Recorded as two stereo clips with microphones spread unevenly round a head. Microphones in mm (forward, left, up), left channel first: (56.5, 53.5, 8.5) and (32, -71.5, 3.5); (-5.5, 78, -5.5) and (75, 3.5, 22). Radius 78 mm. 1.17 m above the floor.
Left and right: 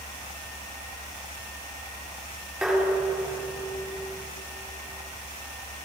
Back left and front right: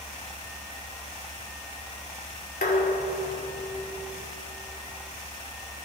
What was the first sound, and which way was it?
Dishes clattering, 170° left.